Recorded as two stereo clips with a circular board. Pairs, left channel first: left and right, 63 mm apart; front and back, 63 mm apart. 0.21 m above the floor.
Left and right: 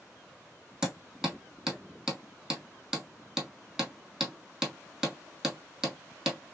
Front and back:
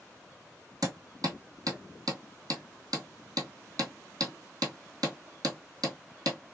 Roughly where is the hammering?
Behind.